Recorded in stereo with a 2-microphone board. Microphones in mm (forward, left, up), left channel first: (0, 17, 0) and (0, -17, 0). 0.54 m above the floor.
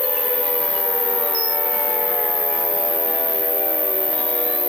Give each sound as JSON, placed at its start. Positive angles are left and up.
{"t": 0.0, "sound": "an insect", "side_deg": 55, "distance_m": 3.0}